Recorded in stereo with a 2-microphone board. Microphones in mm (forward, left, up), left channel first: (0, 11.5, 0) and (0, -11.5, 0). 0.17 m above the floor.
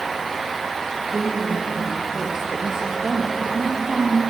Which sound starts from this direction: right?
A woman speaking, at 1.1 s.